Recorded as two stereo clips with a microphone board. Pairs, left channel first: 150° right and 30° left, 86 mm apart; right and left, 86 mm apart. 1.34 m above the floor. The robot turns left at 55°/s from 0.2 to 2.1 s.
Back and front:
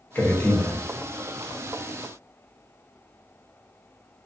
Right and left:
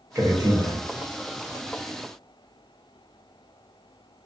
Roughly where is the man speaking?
Behind left.